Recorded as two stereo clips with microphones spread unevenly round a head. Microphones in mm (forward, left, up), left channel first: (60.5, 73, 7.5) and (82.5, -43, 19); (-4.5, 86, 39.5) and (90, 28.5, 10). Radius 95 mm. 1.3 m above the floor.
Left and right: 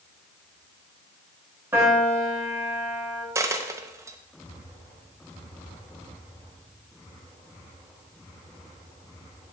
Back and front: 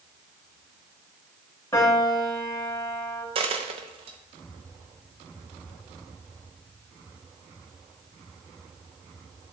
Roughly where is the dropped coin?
Ahead right.